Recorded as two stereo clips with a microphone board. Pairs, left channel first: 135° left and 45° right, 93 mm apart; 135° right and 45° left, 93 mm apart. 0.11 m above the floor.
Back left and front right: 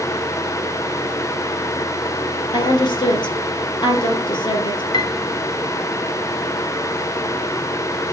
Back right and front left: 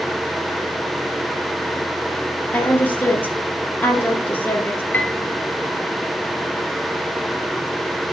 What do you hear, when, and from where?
2.5 s a woman speaking: 155° left, 2.5 m
4.9 s a piano: 155° left, 1.0 m